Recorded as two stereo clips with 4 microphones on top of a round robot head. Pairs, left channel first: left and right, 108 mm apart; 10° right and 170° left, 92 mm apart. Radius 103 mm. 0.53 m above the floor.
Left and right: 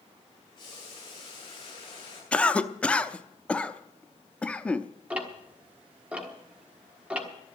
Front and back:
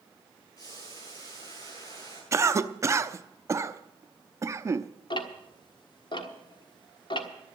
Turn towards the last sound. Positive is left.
turn(degrees=-15)